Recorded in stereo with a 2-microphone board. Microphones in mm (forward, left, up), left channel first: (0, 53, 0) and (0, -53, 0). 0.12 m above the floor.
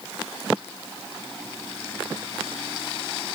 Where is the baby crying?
No baby crying in this recording.